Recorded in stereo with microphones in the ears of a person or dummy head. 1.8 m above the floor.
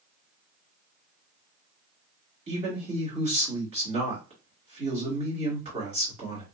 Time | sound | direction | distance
2.5 | a man speaking | 35° right (ahead or behind) | 1.7 m